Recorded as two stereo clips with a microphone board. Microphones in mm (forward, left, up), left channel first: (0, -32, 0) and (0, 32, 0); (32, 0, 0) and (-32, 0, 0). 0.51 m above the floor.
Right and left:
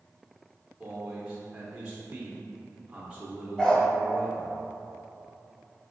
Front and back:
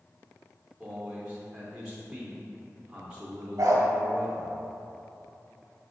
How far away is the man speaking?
About 0.6 m.